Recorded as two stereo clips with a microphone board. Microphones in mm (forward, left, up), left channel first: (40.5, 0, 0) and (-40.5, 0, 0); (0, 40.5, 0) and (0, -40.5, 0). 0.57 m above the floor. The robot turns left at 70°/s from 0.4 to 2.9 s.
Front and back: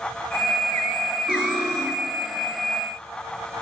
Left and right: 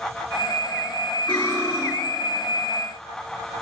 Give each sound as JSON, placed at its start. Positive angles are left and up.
{"t": 1.3, "sound": "cutlery clinking", "azimuth_deg": 165, "distance_m": 1.6}